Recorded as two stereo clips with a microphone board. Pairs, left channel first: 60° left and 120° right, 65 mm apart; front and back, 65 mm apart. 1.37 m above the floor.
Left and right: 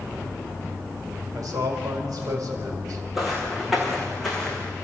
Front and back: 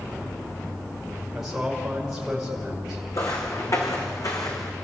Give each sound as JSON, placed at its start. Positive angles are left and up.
{"t": 1.3, "sound": "a man speaking", "azimuth_deg": -95, "distance_m": 6.0}
{"t": 3.1, "sound": "footsteps", "azimuth_deg": -35, "distance_m": 5.0}